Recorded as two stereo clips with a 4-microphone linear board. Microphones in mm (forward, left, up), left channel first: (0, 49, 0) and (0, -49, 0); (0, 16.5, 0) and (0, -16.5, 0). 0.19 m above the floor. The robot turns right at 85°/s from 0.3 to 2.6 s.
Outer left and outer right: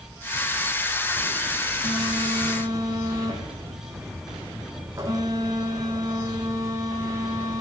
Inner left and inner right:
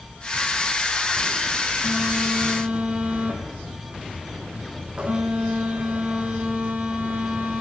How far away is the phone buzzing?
About 5 m.